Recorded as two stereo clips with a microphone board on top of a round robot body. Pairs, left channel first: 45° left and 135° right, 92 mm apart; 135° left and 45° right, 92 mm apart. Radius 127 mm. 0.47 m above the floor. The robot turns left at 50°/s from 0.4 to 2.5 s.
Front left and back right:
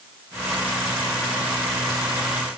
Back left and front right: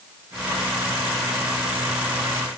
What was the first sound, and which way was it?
Only background noise.